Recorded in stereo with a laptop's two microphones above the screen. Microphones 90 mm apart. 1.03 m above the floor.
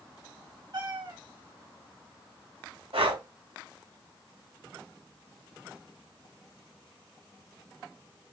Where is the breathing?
80° right, 2.5 m.